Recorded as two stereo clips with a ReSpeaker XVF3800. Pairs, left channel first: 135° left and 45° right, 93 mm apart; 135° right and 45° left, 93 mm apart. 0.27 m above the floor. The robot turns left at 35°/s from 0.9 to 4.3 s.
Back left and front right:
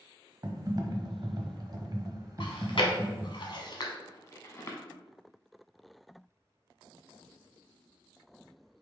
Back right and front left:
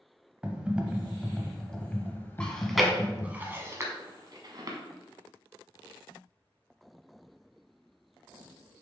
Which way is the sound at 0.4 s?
25° right.